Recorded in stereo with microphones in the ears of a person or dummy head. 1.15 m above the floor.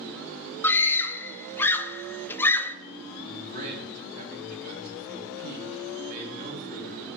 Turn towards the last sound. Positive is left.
turn(degrees=-45)  # may be behind; listen again after turning